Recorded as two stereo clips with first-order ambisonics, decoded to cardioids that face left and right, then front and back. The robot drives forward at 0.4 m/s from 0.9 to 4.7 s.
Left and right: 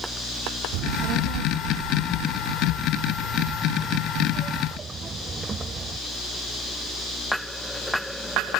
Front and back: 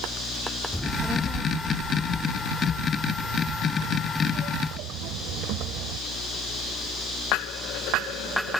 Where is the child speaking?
90° right; by 6.0 s 160° right.